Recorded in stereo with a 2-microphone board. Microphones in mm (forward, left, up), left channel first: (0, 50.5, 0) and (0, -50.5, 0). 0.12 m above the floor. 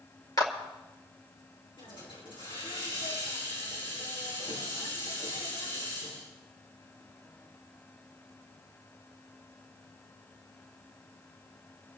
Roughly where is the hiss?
Left.